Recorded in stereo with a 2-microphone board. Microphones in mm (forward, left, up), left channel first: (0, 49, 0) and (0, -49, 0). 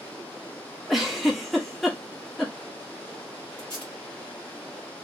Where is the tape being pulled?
10° left (ahead or behind), 1.3 m.